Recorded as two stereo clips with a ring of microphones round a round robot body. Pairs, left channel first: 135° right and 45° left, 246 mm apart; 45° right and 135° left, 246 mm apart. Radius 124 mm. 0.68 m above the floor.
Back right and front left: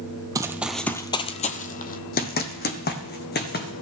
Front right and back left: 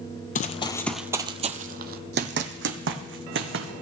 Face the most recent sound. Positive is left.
turn(degrees=175)